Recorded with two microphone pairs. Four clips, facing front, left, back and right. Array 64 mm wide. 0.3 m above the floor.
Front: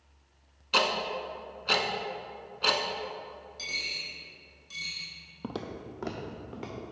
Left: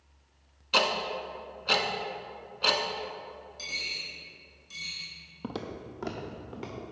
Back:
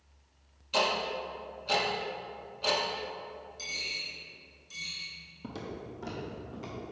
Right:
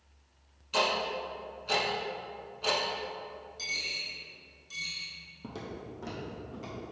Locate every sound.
0.7 s ticking: 35° left, 0.7 m
3.6 s a dropped coin: 5° right, 1.9 m
5.4 s footsteps: 35° left, 0.6 m